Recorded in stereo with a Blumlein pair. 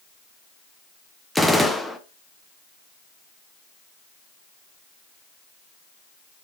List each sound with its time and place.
1.4 s a gunshot: straight ahead, 0.5 m